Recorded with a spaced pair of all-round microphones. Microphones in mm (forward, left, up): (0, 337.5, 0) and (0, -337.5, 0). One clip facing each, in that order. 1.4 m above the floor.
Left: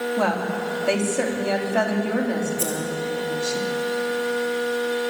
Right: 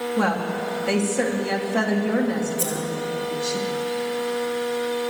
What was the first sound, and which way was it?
A woman speaking, 45° right (ahead or behind).